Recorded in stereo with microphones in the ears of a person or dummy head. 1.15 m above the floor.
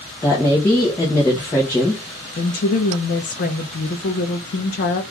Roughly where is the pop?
No pop in this recording.